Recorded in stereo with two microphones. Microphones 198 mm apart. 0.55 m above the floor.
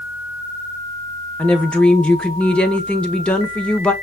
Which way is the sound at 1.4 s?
5° left (ahead or behind).